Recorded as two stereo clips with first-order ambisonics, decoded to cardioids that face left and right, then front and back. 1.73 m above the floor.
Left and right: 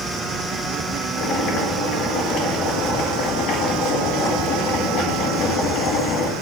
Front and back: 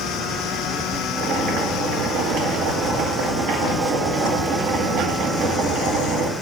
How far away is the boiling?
About 2 m.